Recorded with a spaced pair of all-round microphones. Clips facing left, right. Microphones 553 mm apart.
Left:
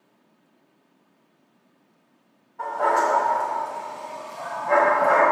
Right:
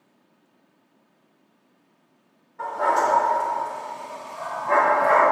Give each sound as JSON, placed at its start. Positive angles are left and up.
{"t": 2.6, "sound": "a dog barking", "side_deg": -40, "distance_m": 1.6}